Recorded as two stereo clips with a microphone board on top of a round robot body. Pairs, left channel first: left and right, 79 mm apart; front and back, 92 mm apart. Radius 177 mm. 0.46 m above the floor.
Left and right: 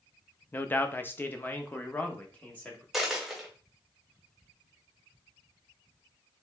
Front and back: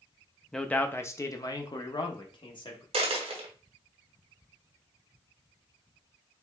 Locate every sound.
0.5 s a man speaking: 75° left, 0.8 m; by 2.8 s 20° left, 1.6 m
2.9 s a dropped coin: 175° right, 0.9 m